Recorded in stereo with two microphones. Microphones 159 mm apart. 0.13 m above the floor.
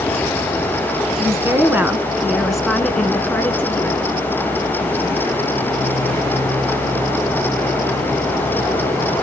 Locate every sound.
1.2 s a woman speaking: 20° right (ahead or behind), 1.5 m; by 4.0 s 15° left (ahead or behind), 1.8 m